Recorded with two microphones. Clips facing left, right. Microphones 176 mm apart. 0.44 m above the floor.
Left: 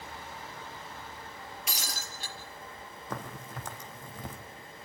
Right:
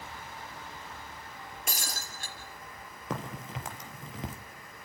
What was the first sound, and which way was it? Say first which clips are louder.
Breaking glass: right 2 dB; 45° right (ahead or behind).